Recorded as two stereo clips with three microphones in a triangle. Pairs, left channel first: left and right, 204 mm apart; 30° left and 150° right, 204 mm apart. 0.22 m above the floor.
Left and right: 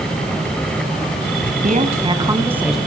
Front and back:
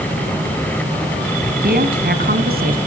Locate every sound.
1.6 s a woman speaking: 130° right, 1.7 m; by 2.8 s straight behind, 1.8 m